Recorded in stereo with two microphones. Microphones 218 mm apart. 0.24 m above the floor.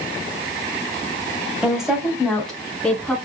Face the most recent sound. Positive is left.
turn(degrees=5)  # may be behind; listen again after turning